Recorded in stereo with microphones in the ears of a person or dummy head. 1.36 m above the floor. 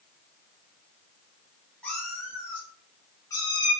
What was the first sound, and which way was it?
A cat meowing, 10° left (ahead or behind).